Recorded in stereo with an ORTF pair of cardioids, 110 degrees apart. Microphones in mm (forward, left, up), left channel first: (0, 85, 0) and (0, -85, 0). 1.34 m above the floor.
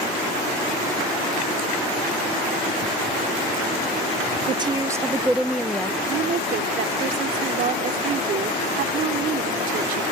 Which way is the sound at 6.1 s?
60° right.